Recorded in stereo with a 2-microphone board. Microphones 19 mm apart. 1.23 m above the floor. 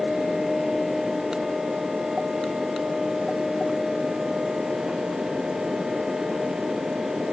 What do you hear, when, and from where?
Only background noise.